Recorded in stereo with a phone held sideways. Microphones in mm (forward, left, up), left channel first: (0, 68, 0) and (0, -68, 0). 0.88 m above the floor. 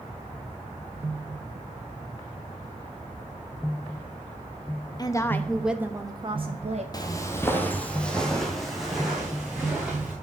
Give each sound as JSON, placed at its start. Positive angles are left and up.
{"t": 5.0, "sound": "a woman speaking", "side_deg": 30, "distance_m": 1.0}
{"t": 6.9, "sound": "footsteps", "side_deg": 30, "distance_m": 1.0}